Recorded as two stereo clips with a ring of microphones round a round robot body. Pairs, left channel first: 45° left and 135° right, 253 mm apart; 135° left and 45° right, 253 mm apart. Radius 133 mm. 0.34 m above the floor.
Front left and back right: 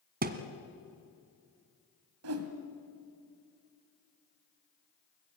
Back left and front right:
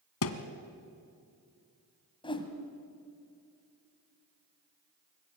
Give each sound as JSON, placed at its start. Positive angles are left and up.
{"t": 0.2, "sound": "a thud", "azimuth_deg": 170, "distance_m": 1.5}
{"t": 2.2, "sound": "a whoosh", "azimuth_deg": -155, "distance_m": 2.0}